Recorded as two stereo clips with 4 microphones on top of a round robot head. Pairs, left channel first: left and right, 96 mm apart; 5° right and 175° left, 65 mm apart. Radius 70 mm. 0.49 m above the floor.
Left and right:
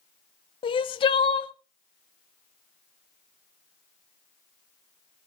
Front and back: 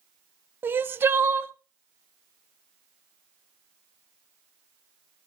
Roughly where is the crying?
Behind left.